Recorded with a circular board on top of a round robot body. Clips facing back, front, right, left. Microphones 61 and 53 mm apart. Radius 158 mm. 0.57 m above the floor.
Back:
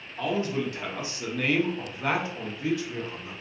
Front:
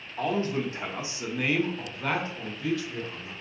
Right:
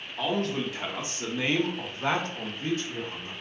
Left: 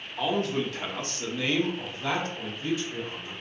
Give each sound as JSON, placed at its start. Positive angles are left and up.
{"t": 0.2, "sound": "a man speaking", "azimuth_deg": 10, "distance_m": 1.0}